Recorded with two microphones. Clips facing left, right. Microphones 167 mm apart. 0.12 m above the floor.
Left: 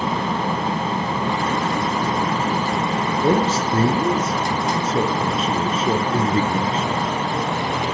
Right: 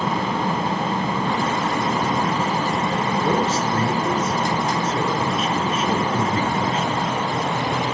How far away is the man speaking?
About 1.7 m.